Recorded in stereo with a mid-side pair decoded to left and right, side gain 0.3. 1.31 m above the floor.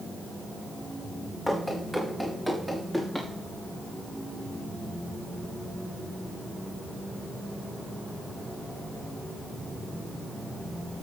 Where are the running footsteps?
5° right, 4.5 m; by 3.3 s 20° right, 5 m.